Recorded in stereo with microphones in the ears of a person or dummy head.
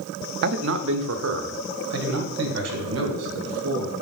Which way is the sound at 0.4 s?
60° right (ahead or behind).